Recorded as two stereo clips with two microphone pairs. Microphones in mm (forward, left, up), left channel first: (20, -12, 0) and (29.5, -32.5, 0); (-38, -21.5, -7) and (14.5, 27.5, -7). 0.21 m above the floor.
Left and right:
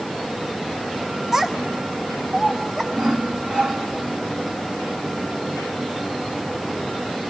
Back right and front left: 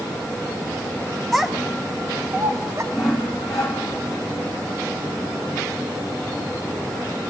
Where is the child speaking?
50° right, 0.9 m; by 2.8 s 5° left, 1.3 m.